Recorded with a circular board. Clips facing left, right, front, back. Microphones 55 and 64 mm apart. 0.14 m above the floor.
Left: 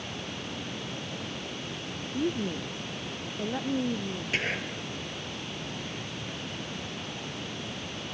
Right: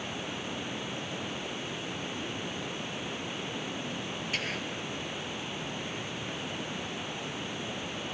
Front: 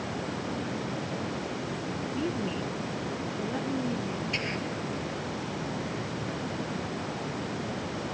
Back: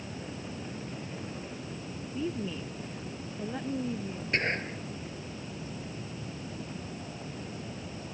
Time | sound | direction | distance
0.0 | running water | 10° right | ?
2.1 | a woman speaking | 85° left | ?
4.3 | whispering | 145° left | ?